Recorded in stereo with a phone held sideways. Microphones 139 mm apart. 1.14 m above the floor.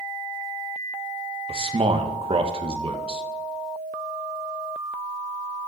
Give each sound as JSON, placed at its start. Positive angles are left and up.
{"t": 1.5, "sound": "a man speaking", "side_deg": -45, "distance_m": 1.1}